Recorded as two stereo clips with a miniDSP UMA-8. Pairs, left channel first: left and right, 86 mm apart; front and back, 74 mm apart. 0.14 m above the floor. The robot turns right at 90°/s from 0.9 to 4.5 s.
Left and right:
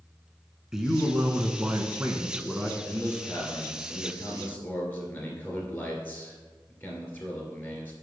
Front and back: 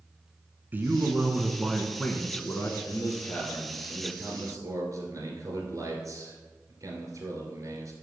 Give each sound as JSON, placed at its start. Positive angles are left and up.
{"t": 0.7, "sound": "a man speaking", "azimuth_deg": -165, "distance_m": 1.2}
{"t": 2.8, "sound": "a man speaking", "azimuth_deg": 0, "distance_m": 2.5}